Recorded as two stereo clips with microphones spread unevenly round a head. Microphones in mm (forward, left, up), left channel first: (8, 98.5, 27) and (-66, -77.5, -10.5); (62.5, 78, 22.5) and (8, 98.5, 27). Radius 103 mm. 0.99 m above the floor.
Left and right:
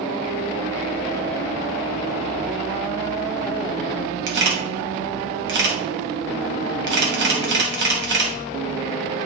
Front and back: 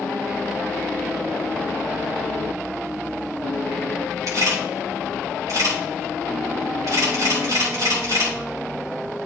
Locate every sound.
4.3 s a camera shutter: 145° right, 2.5 m